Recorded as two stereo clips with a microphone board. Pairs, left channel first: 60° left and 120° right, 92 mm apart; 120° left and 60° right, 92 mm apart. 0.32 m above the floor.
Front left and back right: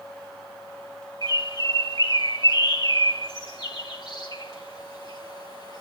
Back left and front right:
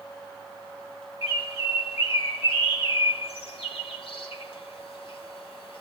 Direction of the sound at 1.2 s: 105° left.